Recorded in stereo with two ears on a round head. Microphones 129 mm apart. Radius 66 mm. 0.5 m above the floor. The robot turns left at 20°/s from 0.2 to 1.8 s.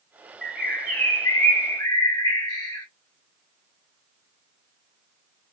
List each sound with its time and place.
0.4 s a bird: centre (ahead or behind), 2 m; by 2.9 s 25° left (ahead or behind), 2 m